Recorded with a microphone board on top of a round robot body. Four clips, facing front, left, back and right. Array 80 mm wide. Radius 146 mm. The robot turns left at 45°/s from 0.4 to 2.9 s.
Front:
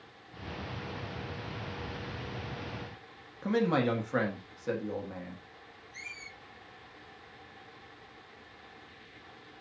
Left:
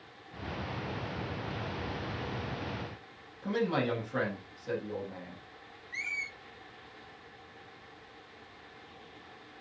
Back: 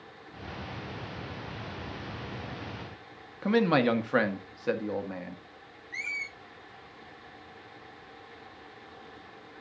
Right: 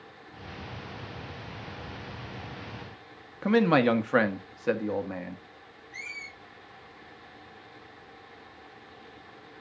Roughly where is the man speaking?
Behind right.